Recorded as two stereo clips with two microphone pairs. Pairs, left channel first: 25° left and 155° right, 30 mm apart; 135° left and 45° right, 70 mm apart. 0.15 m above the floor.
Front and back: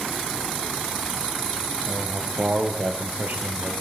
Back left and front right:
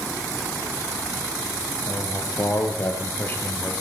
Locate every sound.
1.9 s a man speaking: 170° left, 3.5 m; by 3.7 s 165° right, 3 m